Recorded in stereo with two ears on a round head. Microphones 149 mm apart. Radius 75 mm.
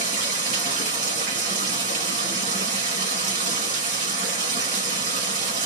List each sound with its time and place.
0.0 s running water: 55° right (ahead or behind), 2 m